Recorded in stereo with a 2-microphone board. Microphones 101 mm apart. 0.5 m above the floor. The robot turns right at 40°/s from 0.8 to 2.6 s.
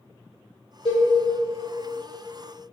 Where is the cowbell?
70° left (ahead or behind), 1.8 m; by 1.1 s 80° left, 1.8 m.